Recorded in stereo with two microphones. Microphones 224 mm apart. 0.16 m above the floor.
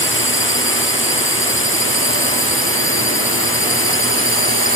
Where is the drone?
60° left (ahead or behind); by 4.8 s 65° left (ahead or behind).